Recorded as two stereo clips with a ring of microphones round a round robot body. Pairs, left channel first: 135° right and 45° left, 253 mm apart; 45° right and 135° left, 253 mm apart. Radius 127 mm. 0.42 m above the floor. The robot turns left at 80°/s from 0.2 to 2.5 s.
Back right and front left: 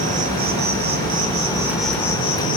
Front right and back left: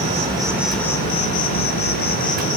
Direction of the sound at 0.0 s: 85° left.